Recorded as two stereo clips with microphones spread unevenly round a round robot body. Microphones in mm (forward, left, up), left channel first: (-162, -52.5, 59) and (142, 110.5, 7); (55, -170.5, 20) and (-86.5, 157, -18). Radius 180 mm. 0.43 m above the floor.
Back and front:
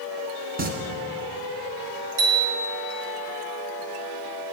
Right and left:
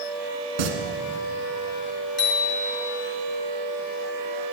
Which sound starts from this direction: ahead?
A bicycle bell, at 2.2 s.